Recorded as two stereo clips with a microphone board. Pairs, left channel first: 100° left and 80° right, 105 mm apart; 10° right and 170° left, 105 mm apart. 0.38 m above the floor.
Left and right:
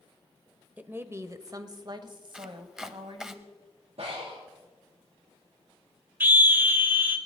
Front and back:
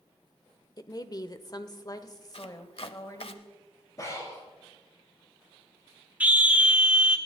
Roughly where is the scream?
Behind right.